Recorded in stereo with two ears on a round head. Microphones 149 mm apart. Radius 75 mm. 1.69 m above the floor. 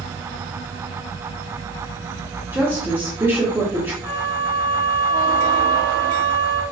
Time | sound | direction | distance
2.5 | a woman speaking | 15° right (ahead or behind) | 0.8 m
4.0 | a flute | 50° left (ahead or behind) | 1.1 m